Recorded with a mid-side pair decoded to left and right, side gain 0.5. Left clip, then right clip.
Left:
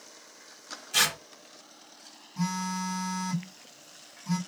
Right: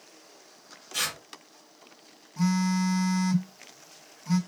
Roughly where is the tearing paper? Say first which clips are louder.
Left 5 dB; ahead left.